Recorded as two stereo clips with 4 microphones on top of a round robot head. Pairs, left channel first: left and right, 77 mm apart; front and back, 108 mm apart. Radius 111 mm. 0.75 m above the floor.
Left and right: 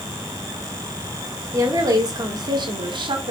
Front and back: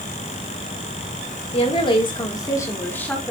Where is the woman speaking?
35° right, 2.5 m; by 3.3 s 85° right, 2 m.